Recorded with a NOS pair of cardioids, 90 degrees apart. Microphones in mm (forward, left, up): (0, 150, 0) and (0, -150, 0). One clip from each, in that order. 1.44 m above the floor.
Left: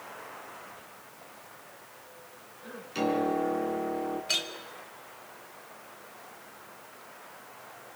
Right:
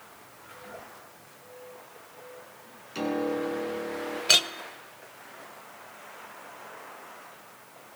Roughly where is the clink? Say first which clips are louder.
Right 10 dB; ahead right.